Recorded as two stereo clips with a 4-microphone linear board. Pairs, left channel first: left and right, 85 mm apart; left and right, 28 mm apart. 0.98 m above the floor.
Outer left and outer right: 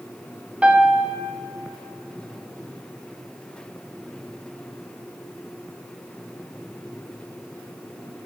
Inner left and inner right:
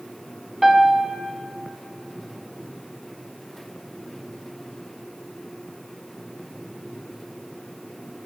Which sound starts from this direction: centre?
A piano, at 0.6 s.